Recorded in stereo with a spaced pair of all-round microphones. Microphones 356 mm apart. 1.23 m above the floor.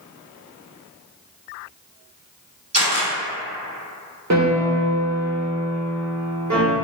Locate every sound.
2.7 s a camera shutter: 45° right (ahead or behind), 1.4 m
4.3 s a piano: 50° right (ahead or behind), 0.6 m